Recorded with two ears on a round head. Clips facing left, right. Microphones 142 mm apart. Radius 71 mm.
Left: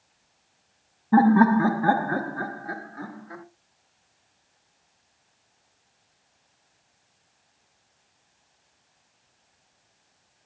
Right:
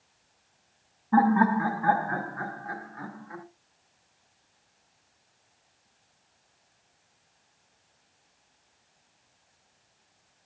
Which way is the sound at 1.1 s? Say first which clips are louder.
Left 4 dB; 30° left (ahead or behind).